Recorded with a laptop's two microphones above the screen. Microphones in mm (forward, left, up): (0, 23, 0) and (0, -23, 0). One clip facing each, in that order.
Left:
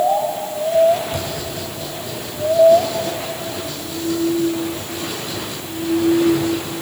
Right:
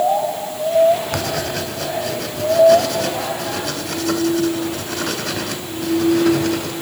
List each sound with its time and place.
1.1 s writing: 70° right (ahead or behind), 3 m